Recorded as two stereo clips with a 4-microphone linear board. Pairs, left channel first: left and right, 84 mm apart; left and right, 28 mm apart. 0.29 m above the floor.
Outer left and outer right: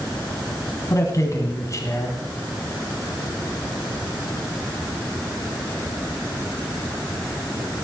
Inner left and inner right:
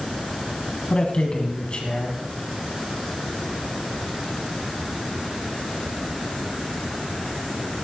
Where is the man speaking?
40° left (ahead or behind), 2.5 m.